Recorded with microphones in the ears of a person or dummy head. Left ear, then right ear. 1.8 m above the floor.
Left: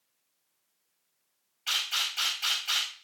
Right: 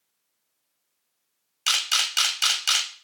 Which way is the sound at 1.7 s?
70° right (ahead or behind).